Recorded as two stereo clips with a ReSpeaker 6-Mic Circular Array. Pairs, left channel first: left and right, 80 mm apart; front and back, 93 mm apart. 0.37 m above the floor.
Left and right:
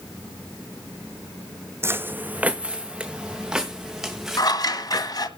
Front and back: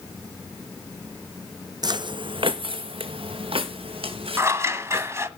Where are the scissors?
120° left, 1.2 m.